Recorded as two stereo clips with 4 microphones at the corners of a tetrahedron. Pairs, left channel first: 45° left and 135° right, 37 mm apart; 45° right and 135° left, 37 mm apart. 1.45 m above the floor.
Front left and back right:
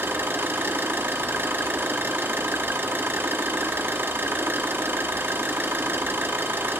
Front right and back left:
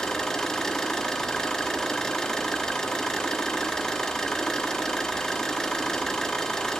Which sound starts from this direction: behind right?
An engine running, at 0.0 s.